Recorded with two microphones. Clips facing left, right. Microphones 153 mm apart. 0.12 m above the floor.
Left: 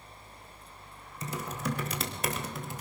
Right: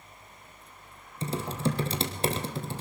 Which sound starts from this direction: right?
Typing on a keyboard, at 1.2 s.